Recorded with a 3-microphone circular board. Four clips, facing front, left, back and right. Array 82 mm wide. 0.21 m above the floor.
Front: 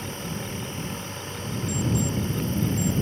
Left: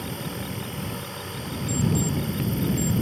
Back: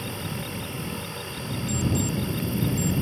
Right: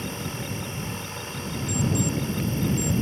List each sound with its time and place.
0.0 s an insect: 120° right
1.7 s an alarm clock: straight behind